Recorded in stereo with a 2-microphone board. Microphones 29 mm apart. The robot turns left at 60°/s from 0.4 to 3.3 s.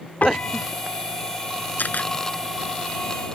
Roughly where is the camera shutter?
Left.